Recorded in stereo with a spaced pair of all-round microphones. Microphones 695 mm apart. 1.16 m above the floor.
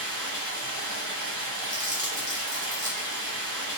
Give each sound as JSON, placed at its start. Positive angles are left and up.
{"t": 0.0, "sound": "running water", "side_deg": -25, "distance_m": 0.7}
{"t": 1.7, "sound": "crumpling", "side_deg": -10, "distance_m": 0.8}